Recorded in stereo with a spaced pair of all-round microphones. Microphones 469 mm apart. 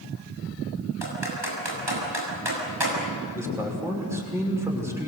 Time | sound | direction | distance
1.0 | typing on a keyboard | 70° right (ahead or behind) | 7 m
3.3 | a man speaking | 5° right (ahead or behind) | 6 m